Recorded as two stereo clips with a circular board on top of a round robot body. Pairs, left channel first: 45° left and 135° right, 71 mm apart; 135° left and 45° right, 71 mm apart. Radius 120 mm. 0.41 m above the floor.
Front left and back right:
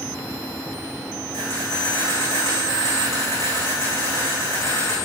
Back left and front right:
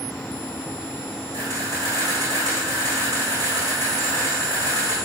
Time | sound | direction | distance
1.3 | a camera shutter | 5° right | 6 m